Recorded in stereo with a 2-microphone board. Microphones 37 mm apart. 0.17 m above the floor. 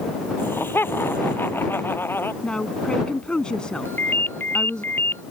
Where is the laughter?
85° left; by 2.3 s 80° left.